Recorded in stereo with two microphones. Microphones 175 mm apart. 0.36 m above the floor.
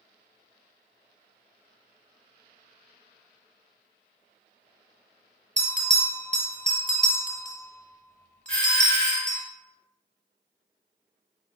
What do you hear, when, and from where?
5.6 s a bell: 45° right (ahead or behind), 0.7 m
8.5 s a doorbell: 5° left (ahead or behind), 1.5 m